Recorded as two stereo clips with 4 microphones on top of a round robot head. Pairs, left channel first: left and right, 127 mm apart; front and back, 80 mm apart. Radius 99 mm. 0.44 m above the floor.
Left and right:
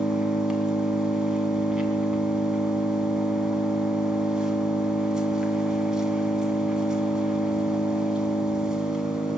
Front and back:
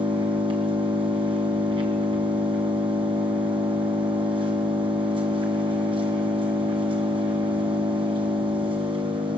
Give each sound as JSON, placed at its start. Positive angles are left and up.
{"t": 0.0, "sound": "an engine running", "azimuth_deg": -175, "distance_m": 3.5}